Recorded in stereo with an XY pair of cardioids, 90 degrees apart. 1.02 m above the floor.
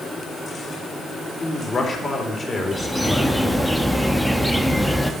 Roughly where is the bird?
Ahead.